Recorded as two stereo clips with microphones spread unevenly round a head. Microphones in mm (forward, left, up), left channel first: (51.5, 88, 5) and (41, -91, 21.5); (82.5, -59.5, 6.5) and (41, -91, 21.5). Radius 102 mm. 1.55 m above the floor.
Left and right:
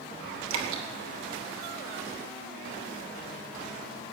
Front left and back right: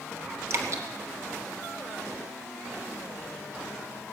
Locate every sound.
0.5 s dripping: 105° right, 2.0 m